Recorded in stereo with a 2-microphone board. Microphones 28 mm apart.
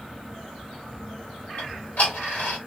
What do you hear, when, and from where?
1.6 s ticking: 65° left (ahead or behind), 1.6 m